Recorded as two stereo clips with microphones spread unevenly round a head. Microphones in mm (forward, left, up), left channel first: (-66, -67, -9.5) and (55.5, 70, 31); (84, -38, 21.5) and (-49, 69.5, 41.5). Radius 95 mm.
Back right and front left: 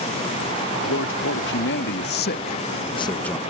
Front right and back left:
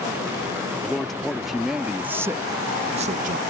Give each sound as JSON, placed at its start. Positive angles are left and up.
{"t": 0.8, "sound": "a man speaking", "azimuth_deg": -125}